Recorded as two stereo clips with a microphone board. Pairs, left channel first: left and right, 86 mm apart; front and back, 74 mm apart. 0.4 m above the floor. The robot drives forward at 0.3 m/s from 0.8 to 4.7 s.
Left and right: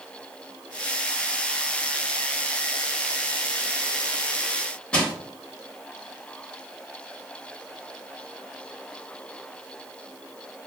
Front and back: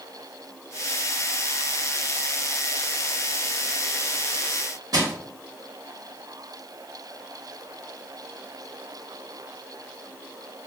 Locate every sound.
4.9 s crushing: 165° left, 0.8 m